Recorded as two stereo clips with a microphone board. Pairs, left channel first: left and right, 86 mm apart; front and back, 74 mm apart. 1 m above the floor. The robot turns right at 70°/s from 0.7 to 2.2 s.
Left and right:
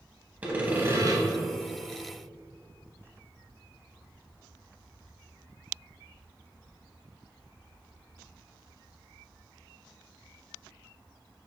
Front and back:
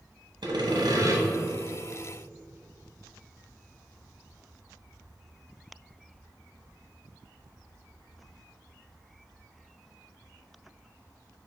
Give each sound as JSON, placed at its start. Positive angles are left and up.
{"t": 0.4, "sound": "sawing", "azimuth_deg": -165, "distance_m": 0.8}